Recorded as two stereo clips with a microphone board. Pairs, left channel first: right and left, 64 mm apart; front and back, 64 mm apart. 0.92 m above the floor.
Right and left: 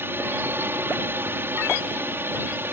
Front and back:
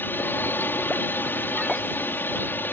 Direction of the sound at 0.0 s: 45° left.